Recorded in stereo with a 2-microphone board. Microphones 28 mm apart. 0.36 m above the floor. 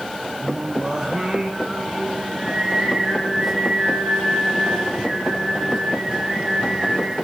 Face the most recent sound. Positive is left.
turn(degrees=-20)  # may be behind; listen again after turning